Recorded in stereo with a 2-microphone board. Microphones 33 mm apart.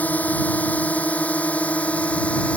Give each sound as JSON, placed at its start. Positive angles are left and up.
{"t": 0.0, "sound": "a drone", "side_deg": 55}